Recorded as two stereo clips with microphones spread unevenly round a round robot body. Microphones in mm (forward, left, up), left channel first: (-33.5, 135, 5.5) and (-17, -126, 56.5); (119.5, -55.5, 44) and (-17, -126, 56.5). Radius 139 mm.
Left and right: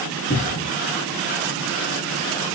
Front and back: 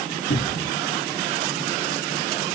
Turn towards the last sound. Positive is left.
turn(degrees=40)